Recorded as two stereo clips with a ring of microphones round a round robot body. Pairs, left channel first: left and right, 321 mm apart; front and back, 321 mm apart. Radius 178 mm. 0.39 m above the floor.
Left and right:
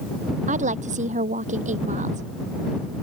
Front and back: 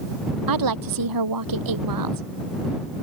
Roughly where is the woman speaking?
Behind.